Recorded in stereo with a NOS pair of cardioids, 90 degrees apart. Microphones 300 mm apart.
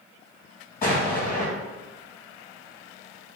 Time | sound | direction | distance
0.8 | an explosion | 30° left | 1.9 m